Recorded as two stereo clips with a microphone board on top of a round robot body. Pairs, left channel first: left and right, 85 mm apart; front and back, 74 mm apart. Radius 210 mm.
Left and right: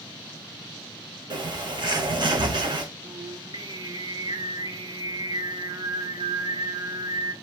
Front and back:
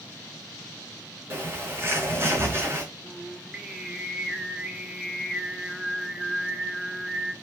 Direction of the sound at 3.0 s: 100° right.